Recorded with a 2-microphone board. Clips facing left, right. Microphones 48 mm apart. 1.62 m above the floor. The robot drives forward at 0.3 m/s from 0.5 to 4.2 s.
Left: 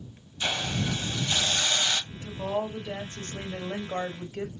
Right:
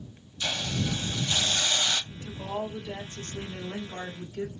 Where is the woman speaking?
35° left (ahead or behind), 1.3 m; by 4.5 s 60° left (ahead or behind), 0.9 m.